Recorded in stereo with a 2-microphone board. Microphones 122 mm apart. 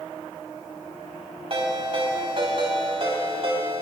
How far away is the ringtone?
About 3.5 m.